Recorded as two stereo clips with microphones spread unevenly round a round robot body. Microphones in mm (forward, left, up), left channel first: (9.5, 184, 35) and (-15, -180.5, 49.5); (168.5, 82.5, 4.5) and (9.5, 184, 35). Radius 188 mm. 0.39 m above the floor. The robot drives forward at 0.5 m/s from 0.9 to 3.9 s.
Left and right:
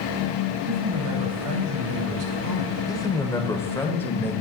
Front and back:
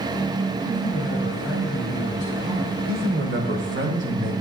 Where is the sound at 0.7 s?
115° right, 2 m; by 2.8 s 135° right, 2.5 m.